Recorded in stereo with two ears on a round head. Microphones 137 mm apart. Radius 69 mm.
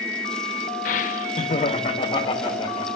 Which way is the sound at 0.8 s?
55° left (ahead or behind).